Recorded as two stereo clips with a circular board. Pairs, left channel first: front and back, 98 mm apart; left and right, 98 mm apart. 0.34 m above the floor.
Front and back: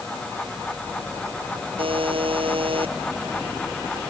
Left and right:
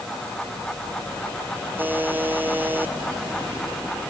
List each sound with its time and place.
1.8 s a buzzer: 160° right